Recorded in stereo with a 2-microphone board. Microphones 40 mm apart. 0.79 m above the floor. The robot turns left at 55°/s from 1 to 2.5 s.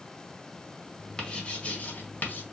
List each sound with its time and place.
1.2 s writing: 15° left (ahead or behind), 1.2 m; by 2.4 s 45° left (ahead or behind), 1.2 m